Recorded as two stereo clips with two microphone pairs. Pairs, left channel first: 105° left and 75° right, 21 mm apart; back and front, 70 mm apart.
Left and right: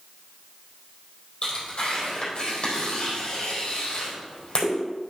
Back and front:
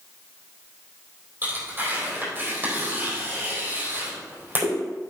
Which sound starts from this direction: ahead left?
Tearing paper, at 1.4 s.